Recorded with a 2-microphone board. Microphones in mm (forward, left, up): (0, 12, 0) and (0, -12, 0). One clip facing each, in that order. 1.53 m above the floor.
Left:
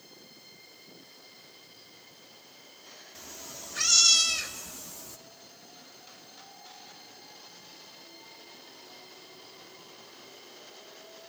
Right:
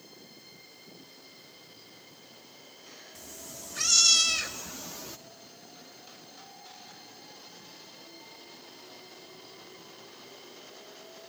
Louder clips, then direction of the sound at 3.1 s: Left 2 dB; 30° left (ahead or behind).